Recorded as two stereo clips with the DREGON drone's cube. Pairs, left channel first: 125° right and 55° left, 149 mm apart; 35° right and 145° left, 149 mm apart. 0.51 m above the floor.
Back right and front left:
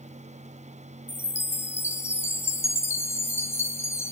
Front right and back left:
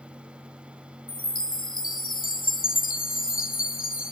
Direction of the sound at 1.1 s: 50° right.